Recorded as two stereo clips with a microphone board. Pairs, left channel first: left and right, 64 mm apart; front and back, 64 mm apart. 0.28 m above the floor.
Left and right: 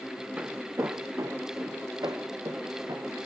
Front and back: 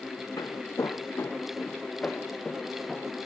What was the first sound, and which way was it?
Footsteps, 20° right.